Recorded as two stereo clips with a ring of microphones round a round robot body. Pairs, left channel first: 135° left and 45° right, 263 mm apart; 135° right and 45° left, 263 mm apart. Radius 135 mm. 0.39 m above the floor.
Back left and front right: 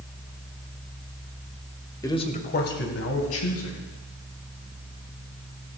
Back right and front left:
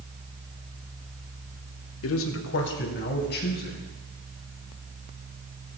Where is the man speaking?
150° right, 1.3 m; by 3.8 s 170° left, 3.5 m.